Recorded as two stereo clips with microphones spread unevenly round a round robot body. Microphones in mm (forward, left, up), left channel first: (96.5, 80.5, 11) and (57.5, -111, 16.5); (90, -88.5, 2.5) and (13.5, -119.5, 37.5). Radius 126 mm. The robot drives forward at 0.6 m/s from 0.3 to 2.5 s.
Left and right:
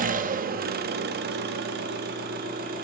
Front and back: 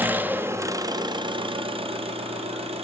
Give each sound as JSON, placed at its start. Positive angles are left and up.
{"t": 0.0, "sound": "an engine running", "azimuth_deg": -70, "distance_m": 1.0}